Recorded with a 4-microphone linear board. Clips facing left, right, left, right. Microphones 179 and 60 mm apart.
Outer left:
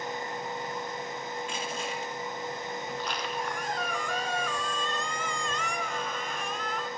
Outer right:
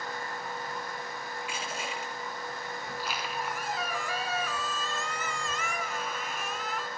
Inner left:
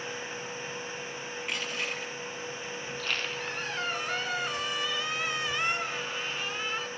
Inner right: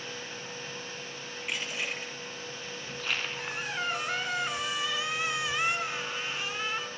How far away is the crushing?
About 8.5 m.